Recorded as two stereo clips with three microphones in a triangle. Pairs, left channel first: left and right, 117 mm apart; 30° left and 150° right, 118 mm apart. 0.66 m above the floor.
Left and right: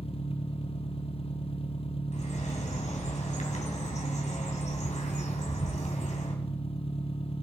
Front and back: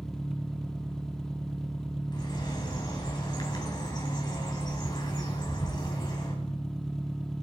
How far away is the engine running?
About 0.8 m.